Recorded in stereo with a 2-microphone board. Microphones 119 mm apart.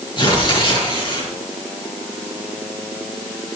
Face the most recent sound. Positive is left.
turn(degrees=40)  # may be behind; listen again after turning